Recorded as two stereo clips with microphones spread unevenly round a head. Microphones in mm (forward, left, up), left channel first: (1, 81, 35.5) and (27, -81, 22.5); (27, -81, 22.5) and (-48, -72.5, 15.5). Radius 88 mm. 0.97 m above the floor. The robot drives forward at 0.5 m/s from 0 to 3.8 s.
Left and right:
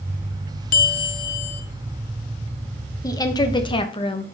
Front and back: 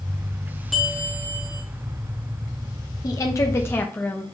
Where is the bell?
80° left, 0.7 m; by 1.6 s 120° left, 0.8 m.